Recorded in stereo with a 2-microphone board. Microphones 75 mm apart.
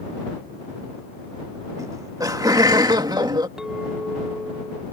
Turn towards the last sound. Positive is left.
turn(degrees=-5)  # may be behind; listen again after turning